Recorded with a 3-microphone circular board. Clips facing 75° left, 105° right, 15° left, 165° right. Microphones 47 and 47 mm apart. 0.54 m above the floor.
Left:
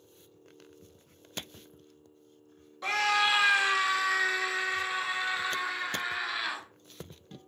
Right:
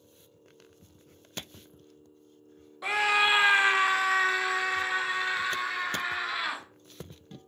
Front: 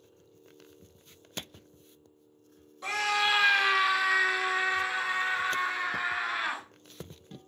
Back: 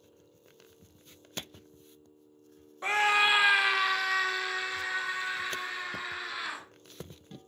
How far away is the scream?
About 0.8 m.